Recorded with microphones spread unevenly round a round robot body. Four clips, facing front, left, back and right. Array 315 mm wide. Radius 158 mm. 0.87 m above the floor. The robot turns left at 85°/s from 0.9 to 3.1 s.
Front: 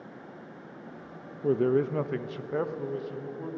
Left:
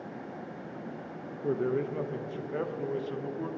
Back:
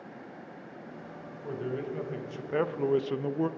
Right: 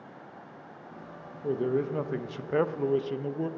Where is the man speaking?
Straight ahead, 0.6 m; by 3.5 s 140° right, 0.6 m.